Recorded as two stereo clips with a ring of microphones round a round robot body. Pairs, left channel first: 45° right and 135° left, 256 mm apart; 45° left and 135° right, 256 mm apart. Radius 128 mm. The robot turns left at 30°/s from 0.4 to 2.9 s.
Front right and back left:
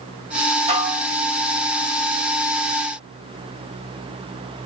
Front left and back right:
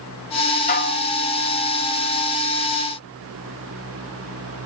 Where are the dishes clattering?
80° left, 0.9 m; by 1.1 s 70° left, 0.9 m.